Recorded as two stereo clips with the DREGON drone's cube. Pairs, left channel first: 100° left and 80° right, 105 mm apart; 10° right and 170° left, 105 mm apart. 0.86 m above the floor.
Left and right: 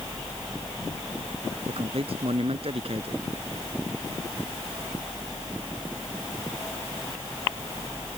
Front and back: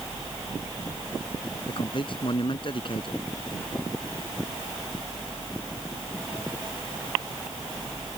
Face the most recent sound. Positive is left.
turn(degrees=-50)